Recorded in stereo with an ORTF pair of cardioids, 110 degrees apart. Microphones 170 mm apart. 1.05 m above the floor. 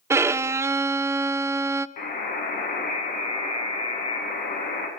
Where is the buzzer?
55° left, 5.5 m.